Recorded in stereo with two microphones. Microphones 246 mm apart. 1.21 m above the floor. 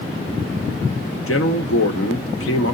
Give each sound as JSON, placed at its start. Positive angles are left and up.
{"t": 1.3, "sound": "a man speaking", "side_deg": 60, "distance_m": 1.0}